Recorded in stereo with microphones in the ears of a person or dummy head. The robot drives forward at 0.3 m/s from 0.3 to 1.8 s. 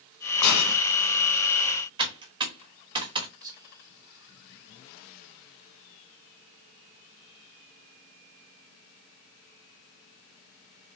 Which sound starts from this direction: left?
A hiss, at 0.4 s.